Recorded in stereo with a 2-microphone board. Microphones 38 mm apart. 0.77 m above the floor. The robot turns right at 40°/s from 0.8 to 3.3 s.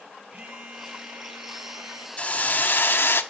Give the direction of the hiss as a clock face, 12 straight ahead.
11 o'clock.